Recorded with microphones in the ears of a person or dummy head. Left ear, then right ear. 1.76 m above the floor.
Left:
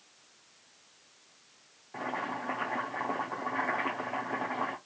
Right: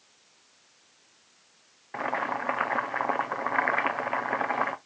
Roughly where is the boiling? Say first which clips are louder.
Right 6 dB; right.